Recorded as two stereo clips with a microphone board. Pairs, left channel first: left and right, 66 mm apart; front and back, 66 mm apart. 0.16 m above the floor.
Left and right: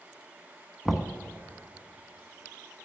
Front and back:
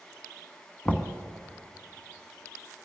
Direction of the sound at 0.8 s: Straight ahead.